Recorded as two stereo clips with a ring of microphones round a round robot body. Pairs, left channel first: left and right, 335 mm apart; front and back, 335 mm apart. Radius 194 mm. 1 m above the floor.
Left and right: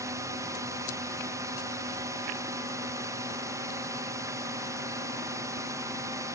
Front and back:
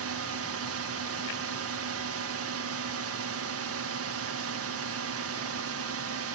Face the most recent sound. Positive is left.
turn(degrees=-165)